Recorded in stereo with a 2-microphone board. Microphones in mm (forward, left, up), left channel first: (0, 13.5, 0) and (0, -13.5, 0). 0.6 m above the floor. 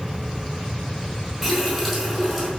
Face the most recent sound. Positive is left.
turn(degrees=-10)  # may be behind; listen again after turning